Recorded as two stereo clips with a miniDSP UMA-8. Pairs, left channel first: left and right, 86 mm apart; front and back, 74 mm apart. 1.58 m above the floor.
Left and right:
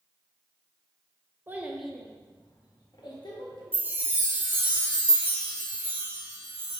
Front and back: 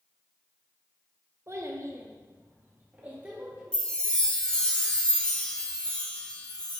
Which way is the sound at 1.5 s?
145° right.